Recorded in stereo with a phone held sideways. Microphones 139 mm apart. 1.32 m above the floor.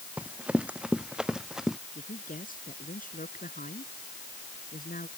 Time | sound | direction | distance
0.2 | running footsteps | 10° right (ahead or behind) | ?
1.9 | a woman speaking | 75° left (ahead or behind) | ?